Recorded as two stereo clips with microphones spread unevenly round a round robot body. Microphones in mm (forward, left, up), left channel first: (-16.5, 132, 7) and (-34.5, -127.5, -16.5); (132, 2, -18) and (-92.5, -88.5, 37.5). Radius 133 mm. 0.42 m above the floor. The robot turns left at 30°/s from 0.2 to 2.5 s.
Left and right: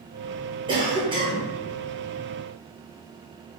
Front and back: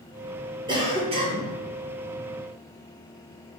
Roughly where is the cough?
Right.